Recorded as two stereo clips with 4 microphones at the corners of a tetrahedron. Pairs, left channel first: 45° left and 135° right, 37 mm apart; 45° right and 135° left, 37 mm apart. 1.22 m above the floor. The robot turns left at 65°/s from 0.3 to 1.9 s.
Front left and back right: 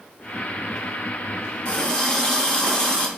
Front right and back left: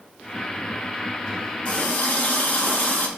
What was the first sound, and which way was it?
A running tap, straight ahead.